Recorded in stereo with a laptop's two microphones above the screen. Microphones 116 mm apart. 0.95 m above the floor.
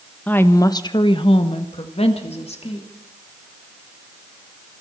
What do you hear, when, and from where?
0.3 s a woman speaking: 15° left (ahead or behind), 0.9 m; by 2.9 s 60° left (ahead or behind), 2.5 m